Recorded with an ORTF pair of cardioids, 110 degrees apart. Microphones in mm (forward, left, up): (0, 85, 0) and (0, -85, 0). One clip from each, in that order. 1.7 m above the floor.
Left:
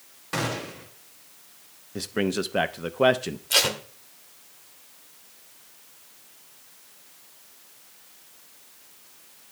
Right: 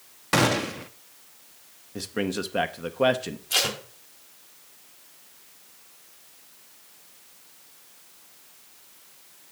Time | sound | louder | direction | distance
0.3 | a gunshot | right 7 dB | 40° right | 0.5 m
1.9 | a man speaking | left 2 dB | 5° left | 0.5 m
3.5 | tape being pulled | left 3 dB | 20° left | 1.1 m